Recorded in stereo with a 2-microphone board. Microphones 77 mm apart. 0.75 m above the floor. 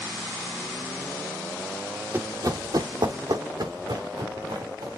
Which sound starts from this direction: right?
Running footsteps, at 2.1 s.